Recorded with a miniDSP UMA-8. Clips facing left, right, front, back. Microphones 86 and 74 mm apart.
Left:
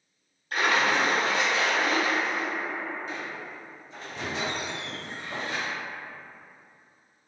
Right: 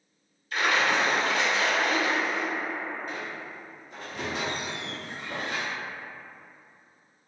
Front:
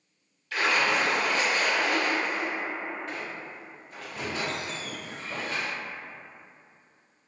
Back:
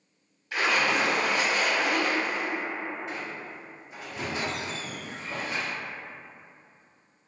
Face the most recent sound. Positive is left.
turn(degrees=-110)